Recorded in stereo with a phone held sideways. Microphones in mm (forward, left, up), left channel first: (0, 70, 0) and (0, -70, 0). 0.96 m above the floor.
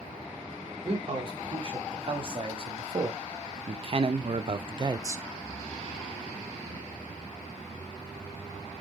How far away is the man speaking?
About 2.5 m.